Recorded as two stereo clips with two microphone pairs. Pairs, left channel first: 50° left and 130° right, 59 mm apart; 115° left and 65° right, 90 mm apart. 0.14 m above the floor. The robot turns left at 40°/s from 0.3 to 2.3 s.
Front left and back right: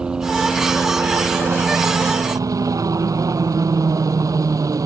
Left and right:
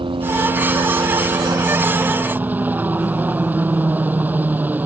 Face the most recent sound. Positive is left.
turn(degrees=-135)